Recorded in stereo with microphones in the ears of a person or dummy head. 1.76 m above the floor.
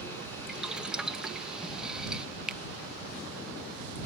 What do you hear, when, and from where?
0.5 s boiling: 5° right (ahead or behind)
2.5 s a finger snap: centre (ahead or behind)